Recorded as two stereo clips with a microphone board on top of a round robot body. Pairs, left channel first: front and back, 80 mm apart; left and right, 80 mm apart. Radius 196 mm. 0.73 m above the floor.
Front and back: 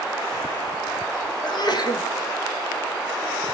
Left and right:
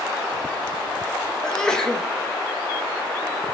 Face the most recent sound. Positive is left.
turn(degrees=10)